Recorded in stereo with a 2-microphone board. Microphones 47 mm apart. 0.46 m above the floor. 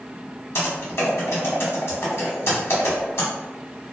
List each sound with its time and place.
0.6 s typing on a keyboard: 70° left (ahead or behind), 1.0 m